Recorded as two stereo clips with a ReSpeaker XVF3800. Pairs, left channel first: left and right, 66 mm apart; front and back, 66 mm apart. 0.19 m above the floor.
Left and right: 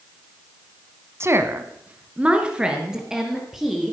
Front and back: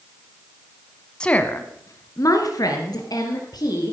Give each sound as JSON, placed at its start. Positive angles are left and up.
{"t": 1.2, "sound": "a woman speaking", "azimuth_deg": -70, "distance_m": 1.2}